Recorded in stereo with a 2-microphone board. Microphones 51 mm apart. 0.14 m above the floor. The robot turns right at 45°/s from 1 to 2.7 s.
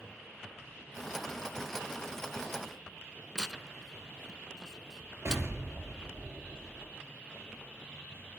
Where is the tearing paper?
10° left (ahead or behind), 0.5 m.